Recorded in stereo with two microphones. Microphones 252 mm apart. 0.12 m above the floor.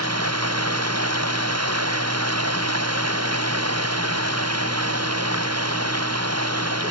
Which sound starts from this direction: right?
Running water, at 0.0 s.